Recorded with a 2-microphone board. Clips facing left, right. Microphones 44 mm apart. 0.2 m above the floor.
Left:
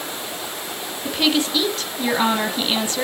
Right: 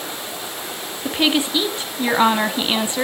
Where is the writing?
No writing in this recording.